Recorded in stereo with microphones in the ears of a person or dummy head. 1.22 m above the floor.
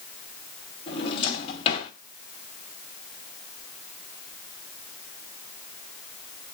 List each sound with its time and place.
0.9 s a drawer: 30° left (ahead or behind), 2.5 m